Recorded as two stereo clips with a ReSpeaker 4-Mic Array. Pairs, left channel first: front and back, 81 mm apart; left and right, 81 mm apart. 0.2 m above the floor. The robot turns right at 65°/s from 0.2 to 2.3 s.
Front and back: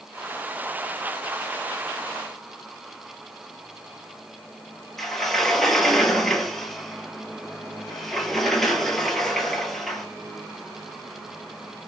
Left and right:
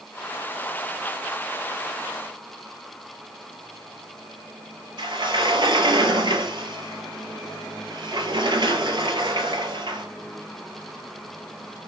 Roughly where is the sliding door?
Right.